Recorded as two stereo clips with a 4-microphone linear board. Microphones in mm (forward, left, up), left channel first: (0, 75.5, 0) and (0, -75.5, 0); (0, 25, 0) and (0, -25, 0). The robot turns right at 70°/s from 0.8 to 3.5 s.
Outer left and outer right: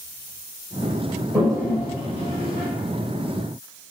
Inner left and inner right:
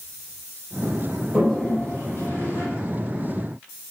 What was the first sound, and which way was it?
A toilet flushing, 10° right (ahead or behind).